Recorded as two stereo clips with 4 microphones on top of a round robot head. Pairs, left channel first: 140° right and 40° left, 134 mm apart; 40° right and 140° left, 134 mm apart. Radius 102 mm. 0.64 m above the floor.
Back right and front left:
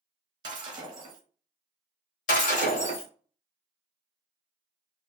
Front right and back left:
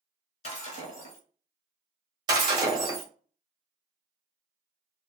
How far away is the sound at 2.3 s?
About 1.2 m.